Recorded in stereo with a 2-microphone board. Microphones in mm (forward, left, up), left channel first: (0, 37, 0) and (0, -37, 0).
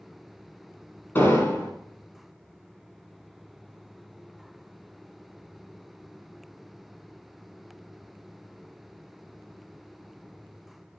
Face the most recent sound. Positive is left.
turn(degrees=30)  # may be behind; listen again after turning